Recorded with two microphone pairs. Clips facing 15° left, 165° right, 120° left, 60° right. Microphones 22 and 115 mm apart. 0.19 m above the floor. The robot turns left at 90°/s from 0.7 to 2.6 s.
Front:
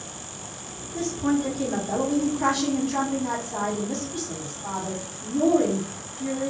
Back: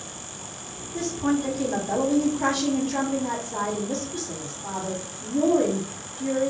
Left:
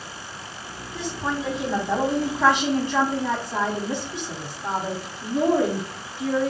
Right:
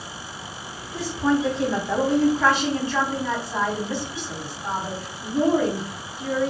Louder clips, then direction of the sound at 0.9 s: Even, right 6 dB; 125° right.